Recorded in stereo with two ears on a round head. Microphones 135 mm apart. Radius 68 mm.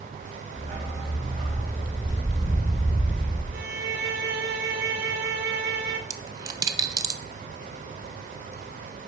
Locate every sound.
0.6 s a dog barking: 40° right (ahead or behind), 3 m; by 3.4 s 45° right (ahead or behind), 5.5 m
3.5 s a violin: 75° right (ahead or behind), 1.2 m
6.1 s a dropped coin: 25° right (ahead or behind), 0.8 m